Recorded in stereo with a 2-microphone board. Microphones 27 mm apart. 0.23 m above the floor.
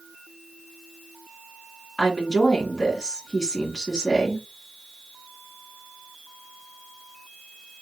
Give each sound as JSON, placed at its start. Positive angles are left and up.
{"t": 2.0, "sound": "a woman speaking", "side_deg": 15, "distance_m": 2.0}